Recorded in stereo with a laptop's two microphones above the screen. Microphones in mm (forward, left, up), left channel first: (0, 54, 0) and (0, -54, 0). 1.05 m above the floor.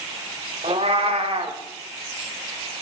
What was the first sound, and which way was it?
A cat meowing, 65° right (ahead or behind).